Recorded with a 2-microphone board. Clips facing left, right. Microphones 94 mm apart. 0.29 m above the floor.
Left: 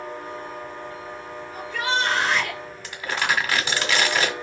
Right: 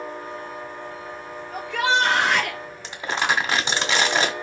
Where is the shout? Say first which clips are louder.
Right 4 dB; 75° right (ahead or behind), 5 m; by 2.6 s 70° right (ahead or behind), 4 m.